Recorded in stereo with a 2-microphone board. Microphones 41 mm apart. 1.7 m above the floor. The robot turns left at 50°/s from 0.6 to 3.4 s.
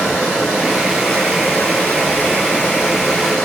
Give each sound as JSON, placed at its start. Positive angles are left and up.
{"t": 0.0, "sound": "running water", "azimuth_deg": 170, "distance_m": 2.0}